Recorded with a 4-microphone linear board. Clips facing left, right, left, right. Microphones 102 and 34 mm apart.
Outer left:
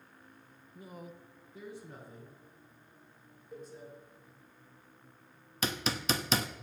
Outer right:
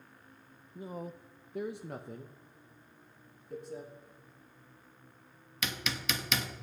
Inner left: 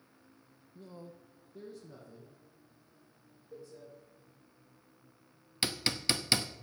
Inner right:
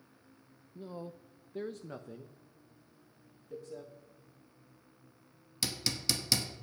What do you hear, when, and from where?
0.8 s a man speaking: 20° right (ahead or behind), 0.6 m; by 3.9 s 80° right, 2.0 m
3.5 s a cowbell: centre (ahead or behind), 2.5 m
5.6 s hammering: 35° left (ahead or behind), 0.9 m